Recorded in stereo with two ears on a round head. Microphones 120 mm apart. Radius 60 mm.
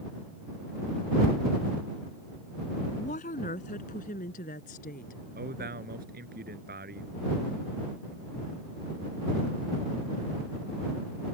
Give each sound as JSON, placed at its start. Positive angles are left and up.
{"t": 2.9, "sound": "a woman speaking", "side_deg": 60}
{"t": 5.3, "sound": "a man speaking", "side_deg": -85}